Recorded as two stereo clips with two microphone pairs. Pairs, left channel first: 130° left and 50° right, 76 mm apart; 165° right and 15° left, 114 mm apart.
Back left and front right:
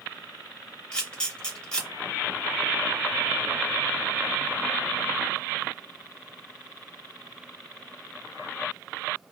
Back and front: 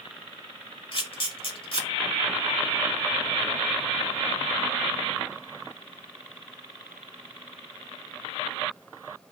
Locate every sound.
0.9 s a camera shutter: 155° right, 0.9 m